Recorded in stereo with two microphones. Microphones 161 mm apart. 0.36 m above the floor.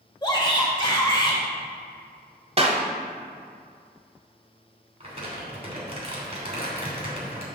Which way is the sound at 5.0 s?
40° right (ahead or behind).